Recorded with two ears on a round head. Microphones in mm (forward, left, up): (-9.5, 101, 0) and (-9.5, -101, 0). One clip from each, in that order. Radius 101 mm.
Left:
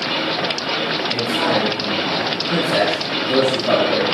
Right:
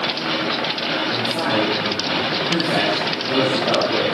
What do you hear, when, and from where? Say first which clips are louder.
1.1 s a man speaking: left 2 dB; 10° right (ahead or behind), 3.5 m; by 4.0 s 20° left (ahead or behind), 4 m